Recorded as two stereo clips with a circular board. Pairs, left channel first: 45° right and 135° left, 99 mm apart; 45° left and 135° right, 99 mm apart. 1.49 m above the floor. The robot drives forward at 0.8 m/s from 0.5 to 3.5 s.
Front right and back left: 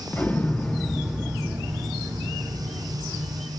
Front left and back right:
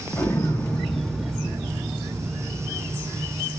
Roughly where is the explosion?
Ahead.